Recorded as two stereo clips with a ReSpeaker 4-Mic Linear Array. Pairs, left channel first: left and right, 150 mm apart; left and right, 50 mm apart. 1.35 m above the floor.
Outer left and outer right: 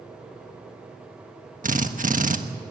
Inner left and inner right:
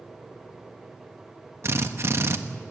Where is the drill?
60° right (ahead or behind), 1.3 m.